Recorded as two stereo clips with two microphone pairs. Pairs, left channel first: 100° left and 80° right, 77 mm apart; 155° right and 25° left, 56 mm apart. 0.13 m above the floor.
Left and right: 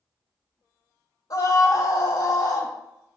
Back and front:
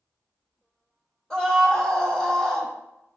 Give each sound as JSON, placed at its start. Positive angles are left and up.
{"t": 1.3, "sound": "a scream", "azimuth_deg": 125, "distance_m": 5.0}